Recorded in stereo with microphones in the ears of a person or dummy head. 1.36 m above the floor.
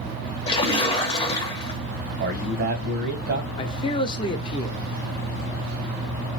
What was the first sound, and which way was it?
A splash, 30° left (ahead or behind).